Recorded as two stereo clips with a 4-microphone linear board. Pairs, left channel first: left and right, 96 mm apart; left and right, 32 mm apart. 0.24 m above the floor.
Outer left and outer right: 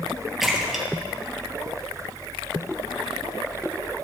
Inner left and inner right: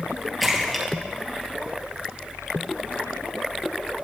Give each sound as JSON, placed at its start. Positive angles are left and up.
{"t": 0.4, "sound": "a splash", "side_deg": 0, "distance_m": 3.0}